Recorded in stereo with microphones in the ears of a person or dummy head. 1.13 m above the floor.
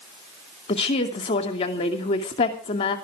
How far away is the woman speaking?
About 2.5 m.